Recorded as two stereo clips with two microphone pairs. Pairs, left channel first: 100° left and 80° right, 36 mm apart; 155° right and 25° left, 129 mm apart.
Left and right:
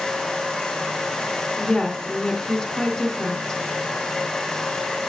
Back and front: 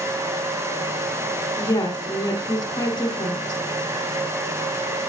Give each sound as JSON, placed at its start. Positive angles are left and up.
{"t": 1.6, "sound": "a woman speaking", "azimuth_deg": 175, "distance_m": 1.3}